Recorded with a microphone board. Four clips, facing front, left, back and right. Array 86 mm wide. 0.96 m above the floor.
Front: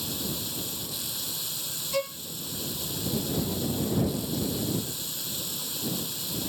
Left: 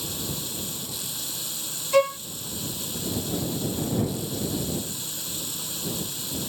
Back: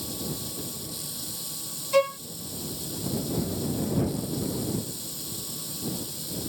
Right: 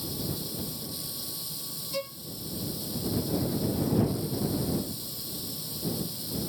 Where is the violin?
120° left.